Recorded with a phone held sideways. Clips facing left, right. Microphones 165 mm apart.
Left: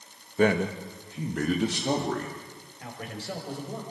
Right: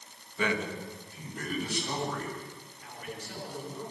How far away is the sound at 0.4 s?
About 1.4 m.